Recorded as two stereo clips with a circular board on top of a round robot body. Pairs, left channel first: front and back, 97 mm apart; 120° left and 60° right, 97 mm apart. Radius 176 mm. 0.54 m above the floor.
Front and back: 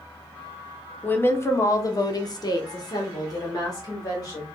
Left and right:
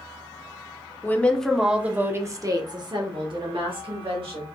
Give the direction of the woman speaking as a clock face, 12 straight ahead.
10 o'clock.